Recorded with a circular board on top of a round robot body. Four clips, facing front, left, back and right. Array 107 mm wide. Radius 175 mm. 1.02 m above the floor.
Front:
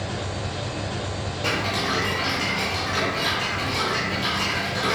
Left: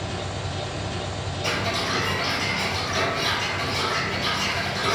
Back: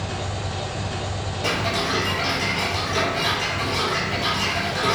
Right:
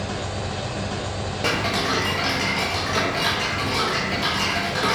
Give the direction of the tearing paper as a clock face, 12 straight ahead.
I don't hear tearing paper.